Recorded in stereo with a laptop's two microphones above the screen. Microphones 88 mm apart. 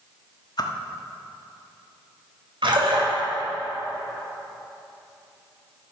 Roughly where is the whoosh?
Left.